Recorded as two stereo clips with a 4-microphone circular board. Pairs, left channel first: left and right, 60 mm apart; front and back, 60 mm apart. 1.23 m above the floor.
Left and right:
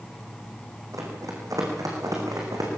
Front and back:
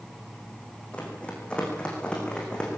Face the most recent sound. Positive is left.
turn(degrees=-75)